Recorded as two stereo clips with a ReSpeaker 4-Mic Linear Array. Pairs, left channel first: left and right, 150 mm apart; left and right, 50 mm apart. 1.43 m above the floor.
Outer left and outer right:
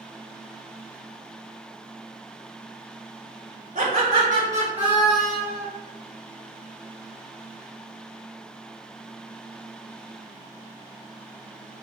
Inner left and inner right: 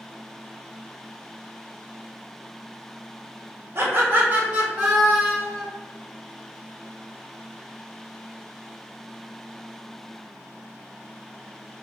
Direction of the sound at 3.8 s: 60° right (ahead or behind).